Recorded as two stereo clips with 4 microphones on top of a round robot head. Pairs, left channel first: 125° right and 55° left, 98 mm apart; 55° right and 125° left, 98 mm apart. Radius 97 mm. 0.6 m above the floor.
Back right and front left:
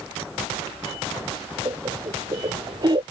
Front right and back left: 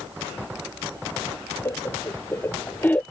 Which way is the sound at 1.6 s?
5° left.